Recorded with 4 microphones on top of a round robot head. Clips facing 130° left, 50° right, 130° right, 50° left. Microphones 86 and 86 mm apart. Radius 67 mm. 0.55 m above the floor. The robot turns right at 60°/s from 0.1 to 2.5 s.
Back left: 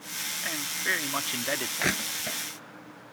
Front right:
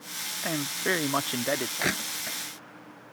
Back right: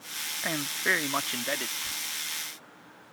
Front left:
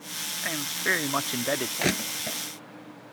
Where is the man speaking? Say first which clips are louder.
Front right 4 dB, even; 60° right; by 1.7 s 15° left.